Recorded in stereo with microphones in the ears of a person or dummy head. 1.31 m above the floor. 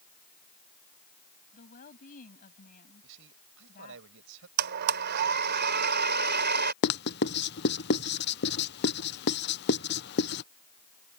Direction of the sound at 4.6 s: 50° right (ahead or behind).